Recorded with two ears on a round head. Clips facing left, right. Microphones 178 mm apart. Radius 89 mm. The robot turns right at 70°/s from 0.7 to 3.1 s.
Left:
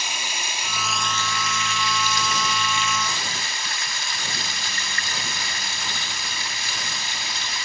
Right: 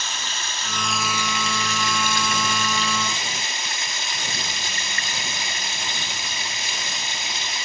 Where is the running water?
165° left, 1.5 m; by 7.7 s 30° right, 1.5 m.